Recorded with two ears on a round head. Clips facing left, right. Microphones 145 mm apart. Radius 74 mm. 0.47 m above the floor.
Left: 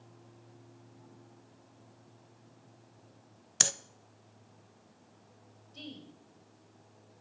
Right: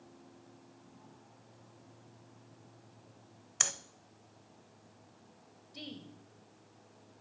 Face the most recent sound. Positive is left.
turn(degrees=-15)  # may be behind; listen again after turning